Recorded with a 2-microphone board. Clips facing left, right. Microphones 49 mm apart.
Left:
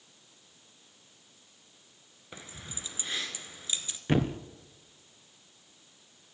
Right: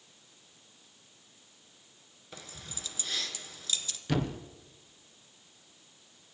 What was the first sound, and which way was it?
Keys jangling, 25° left (ahead or behind).